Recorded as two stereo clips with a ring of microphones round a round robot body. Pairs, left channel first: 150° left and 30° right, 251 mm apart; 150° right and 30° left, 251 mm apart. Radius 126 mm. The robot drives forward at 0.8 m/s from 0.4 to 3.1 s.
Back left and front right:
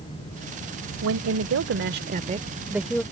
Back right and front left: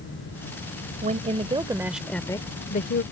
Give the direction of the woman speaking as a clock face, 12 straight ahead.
1 o'clock.